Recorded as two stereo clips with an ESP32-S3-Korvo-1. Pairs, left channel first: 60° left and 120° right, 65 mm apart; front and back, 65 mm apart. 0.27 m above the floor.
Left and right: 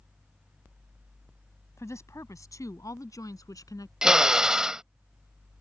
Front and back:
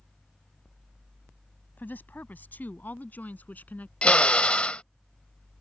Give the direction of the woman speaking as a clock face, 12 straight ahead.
10 o'clock.